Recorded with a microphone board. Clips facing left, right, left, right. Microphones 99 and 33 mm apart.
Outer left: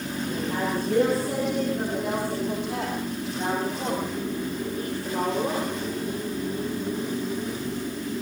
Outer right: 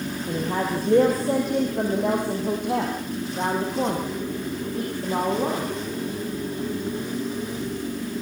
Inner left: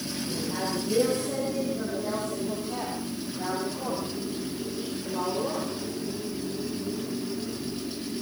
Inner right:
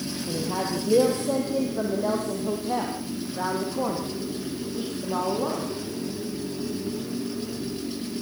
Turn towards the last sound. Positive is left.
turn(degrees=-65)  # may be behind; listen again after turning